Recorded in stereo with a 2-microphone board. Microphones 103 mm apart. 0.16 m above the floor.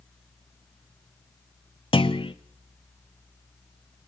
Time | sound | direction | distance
1.9 | a clunk | 60° left (ahead or behind) | 1.1 m